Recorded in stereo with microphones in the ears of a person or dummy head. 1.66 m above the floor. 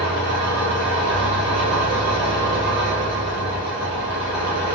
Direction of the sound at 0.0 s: 60° right (ahead or behind).